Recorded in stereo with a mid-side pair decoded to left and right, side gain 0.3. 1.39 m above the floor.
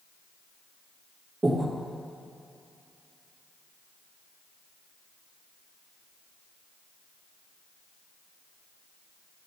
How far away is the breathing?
About 1.4 m.